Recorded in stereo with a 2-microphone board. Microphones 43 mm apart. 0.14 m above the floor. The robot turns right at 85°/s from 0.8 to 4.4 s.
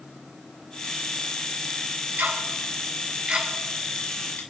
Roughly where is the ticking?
Right.